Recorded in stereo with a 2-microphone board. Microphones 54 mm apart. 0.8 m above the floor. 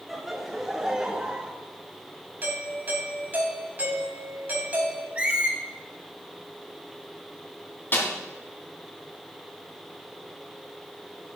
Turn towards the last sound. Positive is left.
turn(degrees=40)  # may be behind; listen again after turning